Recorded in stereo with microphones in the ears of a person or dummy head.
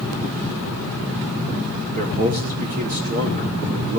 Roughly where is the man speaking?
Right.